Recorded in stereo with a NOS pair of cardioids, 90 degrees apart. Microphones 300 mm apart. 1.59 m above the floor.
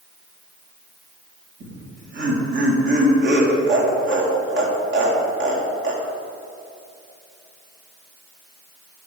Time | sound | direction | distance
1.6 | laughter | 40° right | 2.5 m